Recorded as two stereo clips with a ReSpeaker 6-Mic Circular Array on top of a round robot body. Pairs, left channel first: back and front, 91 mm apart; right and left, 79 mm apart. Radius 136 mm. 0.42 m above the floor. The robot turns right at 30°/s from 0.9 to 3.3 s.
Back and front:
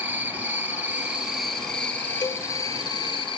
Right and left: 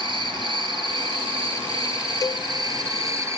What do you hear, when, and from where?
0.0 s an insect: 75° left, 2.5 m; by 3.4 s 145° left, 2.5 m
2.2 s a cowbell: 135° right, 1.2 m; by 2.5 s 130° right, 1.2 m